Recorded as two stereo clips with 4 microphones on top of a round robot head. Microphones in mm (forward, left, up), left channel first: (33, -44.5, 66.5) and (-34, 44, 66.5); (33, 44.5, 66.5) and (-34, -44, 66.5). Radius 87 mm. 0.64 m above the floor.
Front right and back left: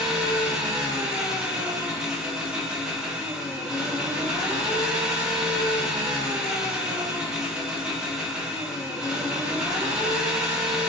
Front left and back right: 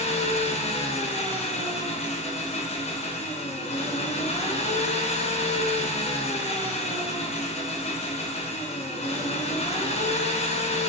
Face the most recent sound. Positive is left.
turn(degrees=45)